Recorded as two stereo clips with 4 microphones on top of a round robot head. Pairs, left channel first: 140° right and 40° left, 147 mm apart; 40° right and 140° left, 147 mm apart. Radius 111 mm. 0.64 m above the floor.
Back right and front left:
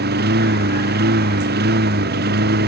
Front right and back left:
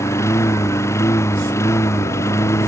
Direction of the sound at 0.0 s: 35° left.